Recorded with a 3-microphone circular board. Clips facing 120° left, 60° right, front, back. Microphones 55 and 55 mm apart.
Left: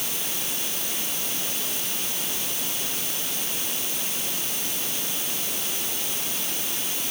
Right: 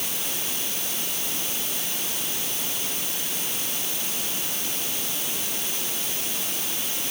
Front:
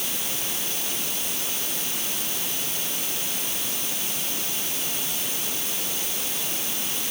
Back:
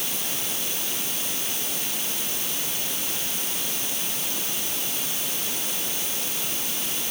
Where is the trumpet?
I don't hear a trumpet.